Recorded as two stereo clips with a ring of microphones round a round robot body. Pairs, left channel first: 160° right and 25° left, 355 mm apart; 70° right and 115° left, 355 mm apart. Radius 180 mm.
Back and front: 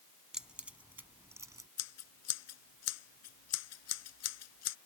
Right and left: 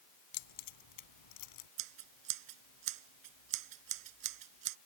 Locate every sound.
0.3 s keys jangling: 65° right; by 1.7 s 60° right
1.8 s scissors: 150° left